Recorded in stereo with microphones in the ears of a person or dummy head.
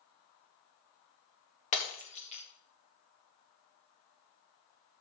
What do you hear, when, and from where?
1.7 s breaking glass: 25° left (ahead or behind), 1.6 m